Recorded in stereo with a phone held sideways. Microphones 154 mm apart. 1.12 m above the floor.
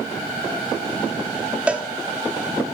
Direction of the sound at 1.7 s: 10° right (ahead or behind).